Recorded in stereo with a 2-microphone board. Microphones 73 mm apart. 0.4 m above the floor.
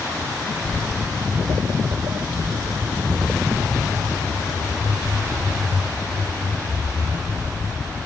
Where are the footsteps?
25° left (ahead or behind), 0.7 m; by 8.0 s 75° right (ahead or behind), 7 m.